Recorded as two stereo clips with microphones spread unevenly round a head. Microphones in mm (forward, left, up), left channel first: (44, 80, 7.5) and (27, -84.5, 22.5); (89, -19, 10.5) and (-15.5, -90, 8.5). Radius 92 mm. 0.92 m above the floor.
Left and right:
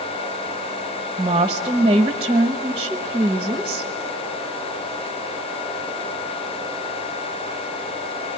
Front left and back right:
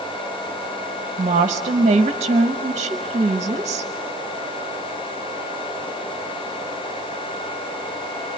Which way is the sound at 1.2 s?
160° right.